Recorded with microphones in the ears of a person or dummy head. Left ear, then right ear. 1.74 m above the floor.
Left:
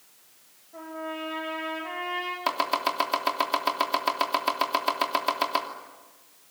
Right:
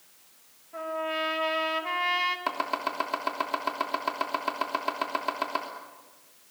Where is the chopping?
20° left (ahead or behind), 3 m.